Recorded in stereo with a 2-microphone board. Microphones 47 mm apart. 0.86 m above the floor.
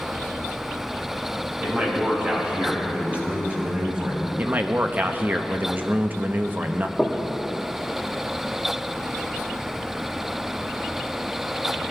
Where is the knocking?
5° right (ahead or behind), 1.6 m.